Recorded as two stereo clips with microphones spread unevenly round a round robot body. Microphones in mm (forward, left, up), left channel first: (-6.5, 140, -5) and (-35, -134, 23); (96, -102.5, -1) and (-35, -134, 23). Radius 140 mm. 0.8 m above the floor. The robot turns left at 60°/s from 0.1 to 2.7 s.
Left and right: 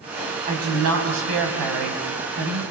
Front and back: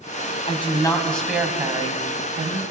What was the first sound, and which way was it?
A woman speaking, 30° right.